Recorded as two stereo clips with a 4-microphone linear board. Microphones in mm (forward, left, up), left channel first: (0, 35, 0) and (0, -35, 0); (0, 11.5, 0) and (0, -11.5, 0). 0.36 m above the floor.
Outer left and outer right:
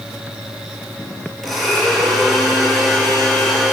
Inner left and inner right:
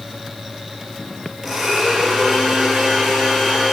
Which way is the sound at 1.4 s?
Centre (ahead or behind).